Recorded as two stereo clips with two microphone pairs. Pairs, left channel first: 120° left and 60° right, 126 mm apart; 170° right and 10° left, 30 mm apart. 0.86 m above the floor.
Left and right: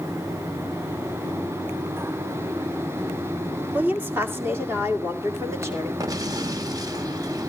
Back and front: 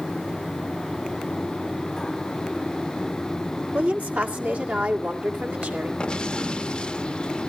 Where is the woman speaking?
15° left, 1.6 m; by 5.9 s 5° left, 3 m.